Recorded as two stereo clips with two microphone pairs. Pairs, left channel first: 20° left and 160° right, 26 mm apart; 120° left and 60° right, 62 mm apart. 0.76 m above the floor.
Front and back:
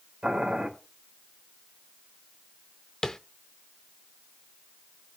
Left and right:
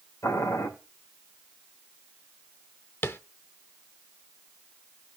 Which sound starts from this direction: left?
Tapping, at 3.0 s.